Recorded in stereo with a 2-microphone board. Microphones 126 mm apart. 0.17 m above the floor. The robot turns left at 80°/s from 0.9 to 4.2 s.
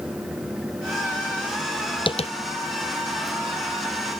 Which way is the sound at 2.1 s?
45° left (ahead or behind).